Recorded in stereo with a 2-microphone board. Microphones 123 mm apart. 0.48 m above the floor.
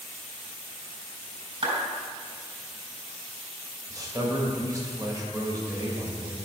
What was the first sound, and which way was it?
A clap, 45° right (ahead or behind).